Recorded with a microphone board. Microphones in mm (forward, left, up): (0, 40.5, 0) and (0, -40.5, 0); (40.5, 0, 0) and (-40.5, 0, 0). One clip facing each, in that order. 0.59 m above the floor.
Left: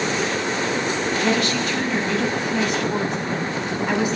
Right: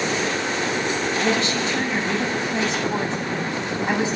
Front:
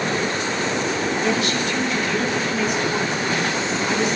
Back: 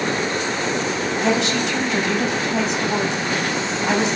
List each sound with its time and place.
1.2 s a woman speaking: 155° right, 4.5 m